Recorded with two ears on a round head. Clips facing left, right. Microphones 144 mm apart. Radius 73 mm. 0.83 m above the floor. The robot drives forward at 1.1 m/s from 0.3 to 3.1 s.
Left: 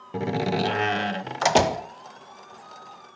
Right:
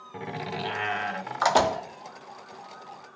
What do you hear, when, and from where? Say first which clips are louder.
0.1 s a door slam: left 9 dB; 45° left (ahead or behind), 0.7 m; by 1.9 s 20° left (ahead or behind), 1.6 m